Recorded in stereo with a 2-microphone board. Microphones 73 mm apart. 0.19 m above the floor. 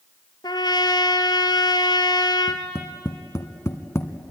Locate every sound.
0.4 s a trumpet: 75° left (ahead or behind), 1.3 m
2.5 s tapping: 35° left (ahead or behind), 1.5 m